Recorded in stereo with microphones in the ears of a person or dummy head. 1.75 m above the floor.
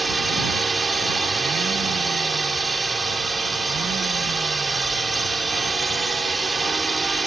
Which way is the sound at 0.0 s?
Centre (ahead or behind).